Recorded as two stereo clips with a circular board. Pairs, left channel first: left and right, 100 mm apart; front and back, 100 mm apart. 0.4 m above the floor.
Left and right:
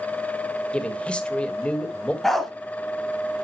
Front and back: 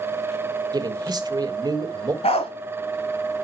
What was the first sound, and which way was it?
A man speaking, 165° left.